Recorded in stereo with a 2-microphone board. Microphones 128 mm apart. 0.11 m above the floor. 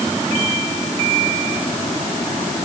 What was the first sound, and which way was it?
Only background noise.